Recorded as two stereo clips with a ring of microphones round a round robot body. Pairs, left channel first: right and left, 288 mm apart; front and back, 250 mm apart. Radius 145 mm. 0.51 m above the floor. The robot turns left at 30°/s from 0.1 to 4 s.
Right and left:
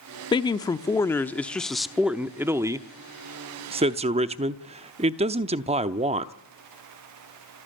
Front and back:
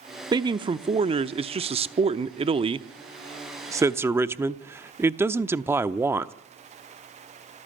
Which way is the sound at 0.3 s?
135° right.